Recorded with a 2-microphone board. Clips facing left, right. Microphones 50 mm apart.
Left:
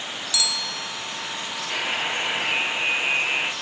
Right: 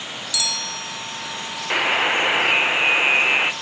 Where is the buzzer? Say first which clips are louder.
Right 8 dB; 50° right (ahead or behind), 0.7 m.